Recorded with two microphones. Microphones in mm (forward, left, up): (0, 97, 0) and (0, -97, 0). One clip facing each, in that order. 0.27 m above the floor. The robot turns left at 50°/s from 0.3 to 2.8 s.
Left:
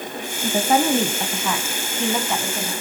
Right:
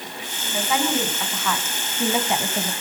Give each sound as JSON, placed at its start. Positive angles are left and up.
{"t": 0.4, "sound": "a woman speaking", "azimuth_deg": 75, "distance_m": 2.0}